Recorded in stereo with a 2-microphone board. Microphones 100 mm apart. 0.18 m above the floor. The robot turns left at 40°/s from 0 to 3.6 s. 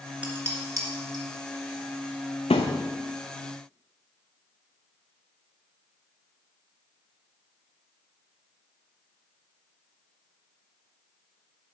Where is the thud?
85° left, 1.0 m; by 2.9 s 80° left, 1.0 m.